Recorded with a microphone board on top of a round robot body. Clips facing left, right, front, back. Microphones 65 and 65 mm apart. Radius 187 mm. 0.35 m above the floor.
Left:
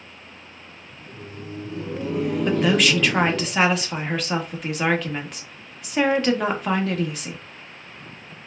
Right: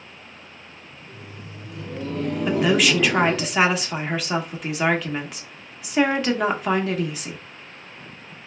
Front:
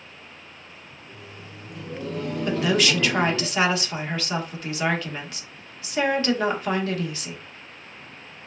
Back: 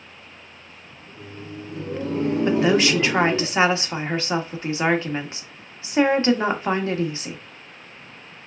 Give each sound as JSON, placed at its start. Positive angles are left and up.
{"t": 1.0, "sound": "laughter", "azimuth_deg": 125, "distance_m": 1.4}
{"t": 2.5, "sound": "a woman speaking", "azimuth_deg": -175, "distance_m": 1.2}